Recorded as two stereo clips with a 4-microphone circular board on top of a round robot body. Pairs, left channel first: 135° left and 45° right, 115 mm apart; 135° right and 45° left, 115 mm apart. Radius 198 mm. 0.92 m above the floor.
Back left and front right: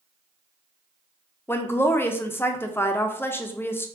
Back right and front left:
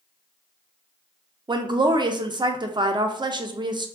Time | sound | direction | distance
1.5 | a woman speaking | 70° left | 0.5 m